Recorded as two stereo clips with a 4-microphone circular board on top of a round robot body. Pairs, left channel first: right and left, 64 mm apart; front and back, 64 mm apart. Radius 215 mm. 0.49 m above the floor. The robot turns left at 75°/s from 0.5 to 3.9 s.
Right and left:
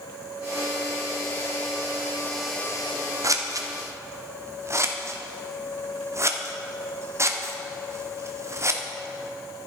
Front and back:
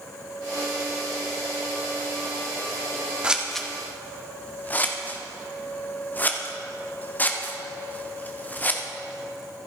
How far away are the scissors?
About 1.9 m.